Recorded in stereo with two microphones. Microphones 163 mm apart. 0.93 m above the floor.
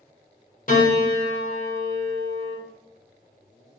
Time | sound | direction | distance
0.7 | a piano | 55° left (ahead or behind) | 1.0 m